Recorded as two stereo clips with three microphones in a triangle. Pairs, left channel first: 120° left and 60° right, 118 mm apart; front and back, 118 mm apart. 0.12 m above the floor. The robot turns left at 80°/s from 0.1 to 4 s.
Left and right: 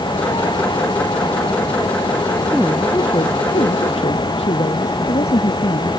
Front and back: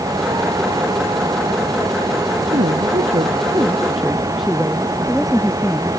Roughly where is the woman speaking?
Behind right.